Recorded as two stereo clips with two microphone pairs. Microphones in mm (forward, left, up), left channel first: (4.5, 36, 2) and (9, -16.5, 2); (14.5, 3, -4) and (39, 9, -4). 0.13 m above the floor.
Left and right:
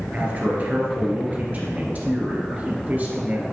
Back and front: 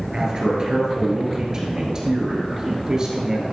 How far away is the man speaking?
About 1.9 m.